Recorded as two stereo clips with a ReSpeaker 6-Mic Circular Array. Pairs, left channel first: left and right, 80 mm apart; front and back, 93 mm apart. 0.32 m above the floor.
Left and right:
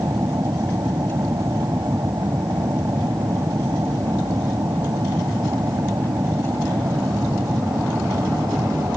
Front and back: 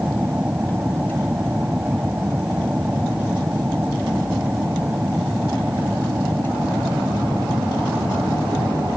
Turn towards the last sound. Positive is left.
turn(degrees=-110)